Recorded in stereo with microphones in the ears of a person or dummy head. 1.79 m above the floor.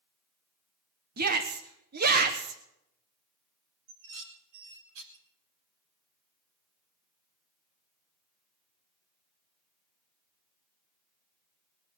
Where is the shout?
55° right (ahead or behind), 1.4 m.